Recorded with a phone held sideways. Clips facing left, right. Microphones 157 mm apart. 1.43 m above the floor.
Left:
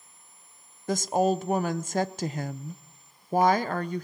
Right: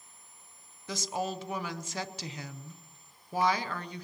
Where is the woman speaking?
50° left (ahead or behind), 0.6 m.